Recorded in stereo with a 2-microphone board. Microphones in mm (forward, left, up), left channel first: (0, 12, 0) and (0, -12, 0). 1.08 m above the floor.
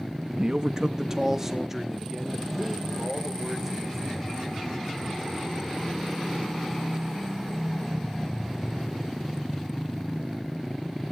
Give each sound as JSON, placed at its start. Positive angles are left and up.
{"t": 0.3, "sound": "a man speaking", "side_deg": -40, "distance_m": 0.9}